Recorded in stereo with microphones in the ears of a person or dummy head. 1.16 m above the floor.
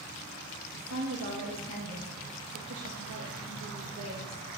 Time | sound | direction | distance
0.7 | a woman speaking | 70° right (ahead or behind) | 1.7 m